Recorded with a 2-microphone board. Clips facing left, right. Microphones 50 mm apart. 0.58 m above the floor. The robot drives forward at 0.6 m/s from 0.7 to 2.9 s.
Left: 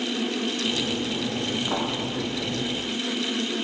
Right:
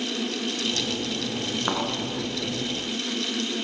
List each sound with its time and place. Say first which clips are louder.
1.7 s a thud: right 2 dB; 50° right (ahead or behind), 4 m